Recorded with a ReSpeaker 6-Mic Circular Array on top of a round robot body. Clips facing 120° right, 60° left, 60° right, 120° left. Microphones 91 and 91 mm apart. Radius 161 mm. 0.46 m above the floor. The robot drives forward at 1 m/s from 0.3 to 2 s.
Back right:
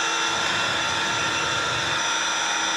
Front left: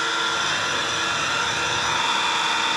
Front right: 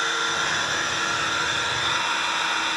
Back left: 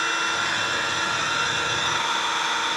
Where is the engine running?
35° left, 4.5 m; by 2.8 s 55° left, 3.5 m.